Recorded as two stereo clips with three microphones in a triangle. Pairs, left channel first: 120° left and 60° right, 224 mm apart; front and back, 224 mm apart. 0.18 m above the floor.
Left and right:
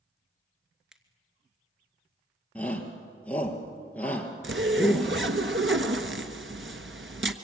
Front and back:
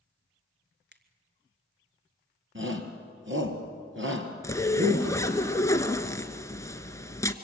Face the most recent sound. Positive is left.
turn(degrees=-75)